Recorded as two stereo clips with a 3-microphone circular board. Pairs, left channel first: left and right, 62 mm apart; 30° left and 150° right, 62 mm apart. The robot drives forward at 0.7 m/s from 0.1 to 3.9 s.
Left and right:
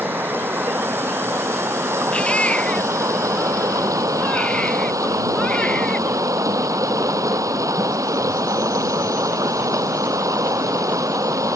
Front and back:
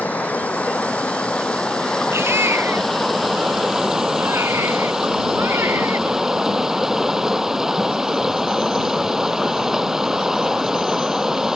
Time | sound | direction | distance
0.0 | running water | 35° right | ?
2.1 | a baby crying | 160° left | ?